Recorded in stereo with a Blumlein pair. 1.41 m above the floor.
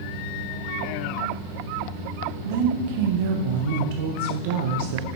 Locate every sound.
2.5 s a woman speaking: 50° right, 0.7 m